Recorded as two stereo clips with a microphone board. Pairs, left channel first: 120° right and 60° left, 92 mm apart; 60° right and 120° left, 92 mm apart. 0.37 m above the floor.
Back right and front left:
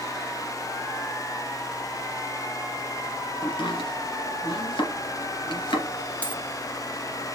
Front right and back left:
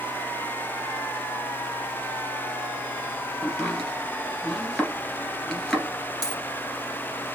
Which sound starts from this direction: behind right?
Chopping, at 3.4 s.